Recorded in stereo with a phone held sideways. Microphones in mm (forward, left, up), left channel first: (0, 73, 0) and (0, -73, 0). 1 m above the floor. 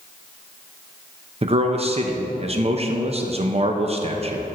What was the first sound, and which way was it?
A man speaking, 40° right (ahead or behind).